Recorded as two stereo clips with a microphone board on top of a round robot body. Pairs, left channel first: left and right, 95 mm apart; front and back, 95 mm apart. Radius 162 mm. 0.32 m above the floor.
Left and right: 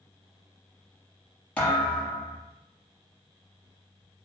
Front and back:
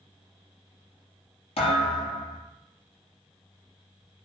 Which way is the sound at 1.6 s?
15° left.